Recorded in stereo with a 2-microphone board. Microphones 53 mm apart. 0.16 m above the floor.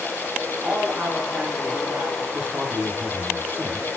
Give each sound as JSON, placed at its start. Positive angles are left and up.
{"t": 0.6, "sound": "a man speaking", "side_deg": -45, "distance_m": 5.5}
{"t": 2.3, "sound": "a man speaking", "side_deg": -35, "distance_m": 5.5}